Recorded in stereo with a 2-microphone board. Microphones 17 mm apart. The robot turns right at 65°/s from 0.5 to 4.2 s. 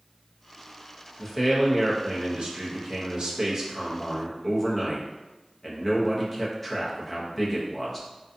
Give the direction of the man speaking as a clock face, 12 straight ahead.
6 o'clock.